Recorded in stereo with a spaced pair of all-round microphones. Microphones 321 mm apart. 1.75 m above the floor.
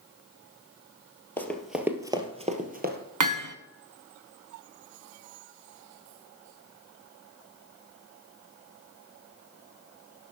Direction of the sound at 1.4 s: 5° left (ahead or behind).